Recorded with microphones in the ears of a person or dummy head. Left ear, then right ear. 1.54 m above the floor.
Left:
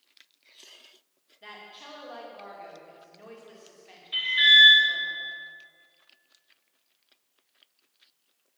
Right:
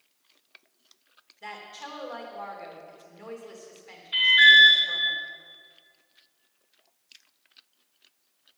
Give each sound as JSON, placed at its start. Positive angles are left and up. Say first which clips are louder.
{"t": 1.4, "sound": "a woman speaking", "louder": "right 5 dB", "side_deg": -20, "distance_m": 2.5}
{"t": 4.1, "sound": "an alarm", "louder": "right 3 dB", "side_deg": -5, "distance_m": 4.0}